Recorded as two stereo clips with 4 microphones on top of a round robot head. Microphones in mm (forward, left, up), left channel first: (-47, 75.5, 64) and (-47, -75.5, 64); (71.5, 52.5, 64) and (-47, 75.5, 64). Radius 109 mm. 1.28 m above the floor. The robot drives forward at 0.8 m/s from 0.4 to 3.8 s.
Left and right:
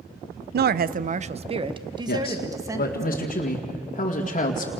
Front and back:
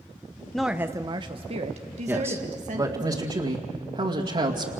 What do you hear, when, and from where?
0.5 s a woman speaking: 95° right, 0.7 m; by 3.1 s 165° right, 2 m
2.1 s a man speaking: 95° left, 1.9 m; by 4.7 s 130° left, 2.5 m